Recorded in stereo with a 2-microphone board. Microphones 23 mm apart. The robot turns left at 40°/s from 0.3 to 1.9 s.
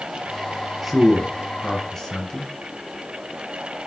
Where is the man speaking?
5° right (ahead or behind), 1.5 m; by 2.5 s 20° left (ahead or behind), 1.5 m.